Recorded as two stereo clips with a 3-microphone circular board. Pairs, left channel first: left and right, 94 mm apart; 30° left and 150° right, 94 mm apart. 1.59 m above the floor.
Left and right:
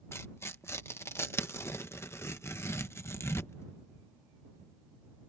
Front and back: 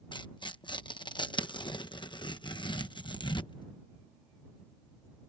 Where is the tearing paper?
35° left.